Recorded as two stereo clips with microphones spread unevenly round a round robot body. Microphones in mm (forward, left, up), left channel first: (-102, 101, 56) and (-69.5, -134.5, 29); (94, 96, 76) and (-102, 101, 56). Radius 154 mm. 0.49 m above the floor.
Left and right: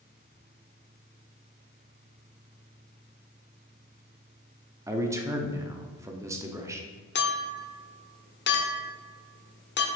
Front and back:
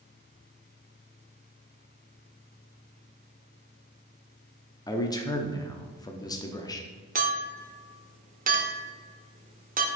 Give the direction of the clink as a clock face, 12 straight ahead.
7 o'clock.